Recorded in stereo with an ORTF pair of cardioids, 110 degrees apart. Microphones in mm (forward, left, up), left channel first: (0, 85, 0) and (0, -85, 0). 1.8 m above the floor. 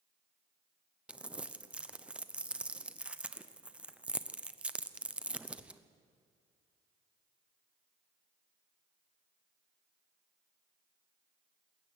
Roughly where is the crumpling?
Ahead.